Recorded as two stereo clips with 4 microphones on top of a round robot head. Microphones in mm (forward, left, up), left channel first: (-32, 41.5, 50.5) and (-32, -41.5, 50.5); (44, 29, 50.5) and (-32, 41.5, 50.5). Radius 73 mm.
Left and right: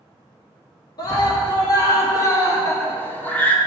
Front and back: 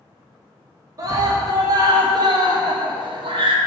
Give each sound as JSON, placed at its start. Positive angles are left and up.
{"t": 1.0, "sound": "a scream", "azimuth_deg": 130, "distance_m": 2.0}